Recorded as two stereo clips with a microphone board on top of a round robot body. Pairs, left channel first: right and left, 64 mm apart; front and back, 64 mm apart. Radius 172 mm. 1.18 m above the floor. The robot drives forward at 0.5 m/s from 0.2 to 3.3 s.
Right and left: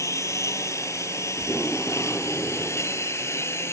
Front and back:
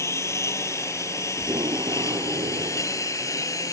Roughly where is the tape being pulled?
Behind.